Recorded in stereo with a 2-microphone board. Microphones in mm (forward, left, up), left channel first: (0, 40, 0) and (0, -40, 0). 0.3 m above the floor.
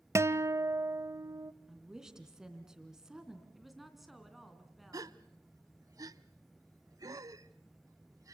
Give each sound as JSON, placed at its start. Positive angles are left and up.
{"t": 0.1, "sound": "a guitar", "side_deg": -35, "distance_m": 0.6}
{"t": 1.7, "sound": "a woman speaking", "side_deg": -10, "distance_m": 3.0}
{"t": 3.5, "sound": "a woman speaking", "side_deg": 0, "distance_m": 3.0}
{"t": 4.9, "sound": "a gasp", "side_deg": -50, "distance_m": 0.6}